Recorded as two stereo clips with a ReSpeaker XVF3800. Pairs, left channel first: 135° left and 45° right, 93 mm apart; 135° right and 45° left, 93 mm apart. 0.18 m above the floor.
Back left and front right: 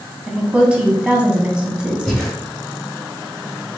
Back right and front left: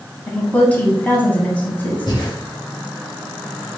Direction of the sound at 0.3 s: 100° right.